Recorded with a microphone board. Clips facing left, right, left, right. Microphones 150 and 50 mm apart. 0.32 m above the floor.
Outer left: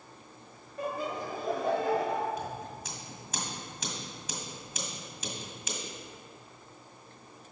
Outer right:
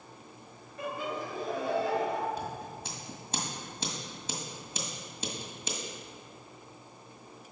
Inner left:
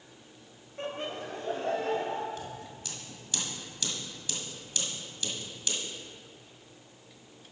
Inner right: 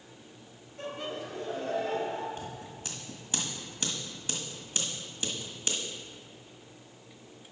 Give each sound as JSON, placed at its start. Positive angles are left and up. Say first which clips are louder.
{"t": 0.8, "sound": "laughter", "louder": "outer left 1 dB, inner left 1 dB", "side_deg": 40, "distance_m": 1.3}
{"t": 2.4, "sound": "scissors", "louder": "even, even", "side_deg": -30, "distance_m": 1.5}